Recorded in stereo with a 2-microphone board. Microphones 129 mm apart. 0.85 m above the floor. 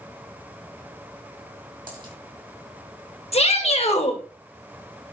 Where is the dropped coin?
40° right (ahead or behind), 3 m.